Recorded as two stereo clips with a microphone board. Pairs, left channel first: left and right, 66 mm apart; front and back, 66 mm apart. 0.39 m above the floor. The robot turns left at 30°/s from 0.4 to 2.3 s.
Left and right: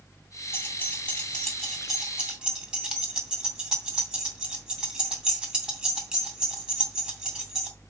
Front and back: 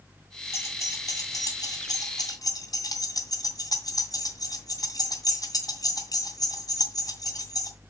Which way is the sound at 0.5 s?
40° left.